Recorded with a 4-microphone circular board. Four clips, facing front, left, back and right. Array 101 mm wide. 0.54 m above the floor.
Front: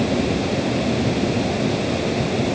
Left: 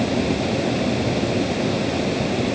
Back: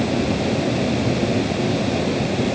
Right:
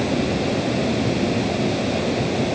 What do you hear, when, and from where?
Only background noise.